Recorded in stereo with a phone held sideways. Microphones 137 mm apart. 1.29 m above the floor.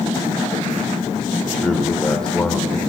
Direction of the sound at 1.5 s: 5° left (ahead or behind).